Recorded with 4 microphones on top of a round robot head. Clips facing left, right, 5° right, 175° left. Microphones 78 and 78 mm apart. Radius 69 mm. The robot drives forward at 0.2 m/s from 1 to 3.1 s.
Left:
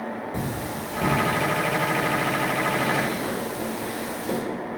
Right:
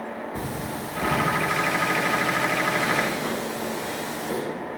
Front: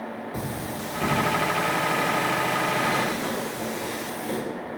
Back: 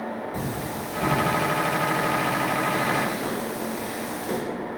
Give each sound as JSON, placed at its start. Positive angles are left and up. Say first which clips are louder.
{"t": 0.3, "sound": "cutlery clinking", "louder": "left 1 dB, back 2 dB", "azimuth_deg": 70, "distance_m": 1.4}